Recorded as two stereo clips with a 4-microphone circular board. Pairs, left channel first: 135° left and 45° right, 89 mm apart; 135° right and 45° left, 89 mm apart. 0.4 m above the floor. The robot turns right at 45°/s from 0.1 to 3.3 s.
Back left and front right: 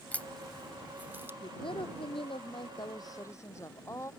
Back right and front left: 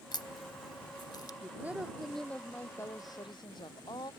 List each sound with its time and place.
0.1 s a crack: 155° right; by 1.3 s 100° right
1.4 s a woman speaking: 105° left; by 4.1 s 170° right